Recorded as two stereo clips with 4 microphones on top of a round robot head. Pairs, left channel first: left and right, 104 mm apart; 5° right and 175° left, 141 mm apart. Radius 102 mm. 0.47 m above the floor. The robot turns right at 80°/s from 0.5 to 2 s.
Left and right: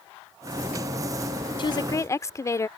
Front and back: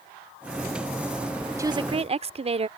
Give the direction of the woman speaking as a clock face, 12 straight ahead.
8 o'clock.